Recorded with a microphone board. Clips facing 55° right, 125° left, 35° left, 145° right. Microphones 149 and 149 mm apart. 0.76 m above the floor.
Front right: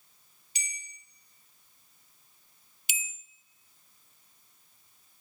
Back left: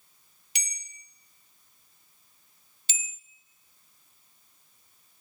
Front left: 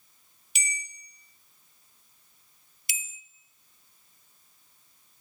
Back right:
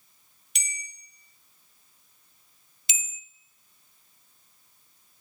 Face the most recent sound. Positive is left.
turn(degrees=-115)